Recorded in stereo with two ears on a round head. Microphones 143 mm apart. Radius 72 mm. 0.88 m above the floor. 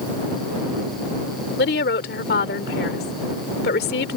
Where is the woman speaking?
65° left (ahead or behind).